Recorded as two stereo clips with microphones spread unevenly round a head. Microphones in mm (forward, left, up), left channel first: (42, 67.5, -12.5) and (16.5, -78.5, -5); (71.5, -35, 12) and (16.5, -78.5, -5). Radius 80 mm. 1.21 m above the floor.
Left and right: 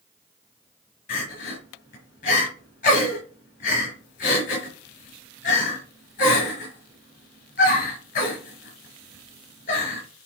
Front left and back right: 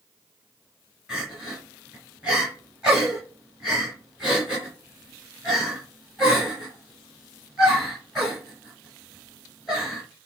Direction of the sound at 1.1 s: 125° left.